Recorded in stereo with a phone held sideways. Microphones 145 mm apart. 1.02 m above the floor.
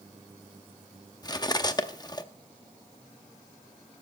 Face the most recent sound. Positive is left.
turn(degrees=30)  # may be behind; listen again after turning